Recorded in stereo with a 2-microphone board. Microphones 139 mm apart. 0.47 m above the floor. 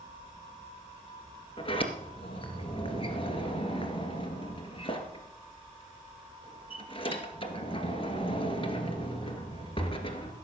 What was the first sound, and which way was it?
A sliding door, 40° left (ahead or behind).